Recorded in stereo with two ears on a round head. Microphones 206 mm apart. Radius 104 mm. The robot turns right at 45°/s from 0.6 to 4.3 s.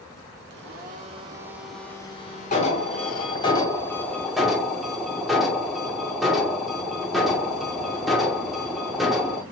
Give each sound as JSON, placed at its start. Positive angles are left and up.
{"t": 0.5, "sound": "a blender", "azimuth_deg": -50, "distance_m": 0.7}
{"t": 2.5, "sound": "an alarm", "azimuth_deg": 100, "distance_m": 1.0}